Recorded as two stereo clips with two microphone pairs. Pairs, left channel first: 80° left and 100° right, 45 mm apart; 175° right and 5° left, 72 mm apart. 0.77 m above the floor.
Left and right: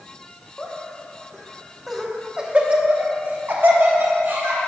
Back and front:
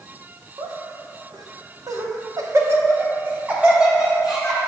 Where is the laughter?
20° left, 1.4 m; by 4.6 s 80° right, 1.9 m.